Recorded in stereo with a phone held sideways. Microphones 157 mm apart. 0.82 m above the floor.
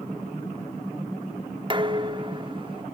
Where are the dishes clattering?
30° right (ahead or behind), 1.0 m.